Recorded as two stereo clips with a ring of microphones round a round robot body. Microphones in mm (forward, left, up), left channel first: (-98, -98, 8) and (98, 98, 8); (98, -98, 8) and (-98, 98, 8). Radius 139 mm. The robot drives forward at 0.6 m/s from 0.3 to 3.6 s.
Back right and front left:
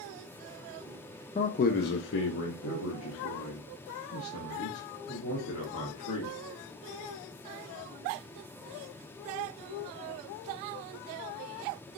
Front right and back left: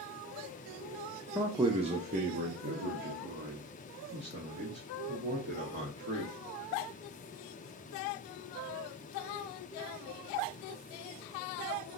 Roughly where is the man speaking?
Behind right.